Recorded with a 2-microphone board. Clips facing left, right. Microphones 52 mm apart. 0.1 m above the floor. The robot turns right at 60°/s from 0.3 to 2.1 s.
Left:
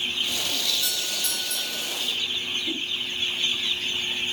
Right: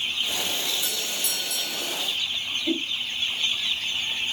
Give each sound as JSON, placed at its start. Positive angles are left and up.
{"t": 0.8, "sound": "a doorbell", "azimuth_deg": 100, "distance_m": 5.5}
{"t": 2.7, "sound": "a whoosh", "side_deg": -50, "distance_m": 2.5}